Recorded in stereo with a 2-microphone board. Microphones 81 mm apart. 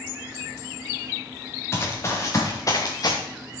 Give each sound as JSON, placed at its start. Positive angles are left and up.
{"t": 1.7, "sound": "running footsteps", "side_deg": 35, "distance_m": 3.0}